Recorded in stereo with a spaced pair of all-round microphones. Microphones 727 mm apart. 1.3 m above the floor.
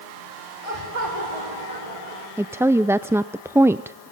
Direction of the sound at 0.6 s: 50° right (ahead or behind).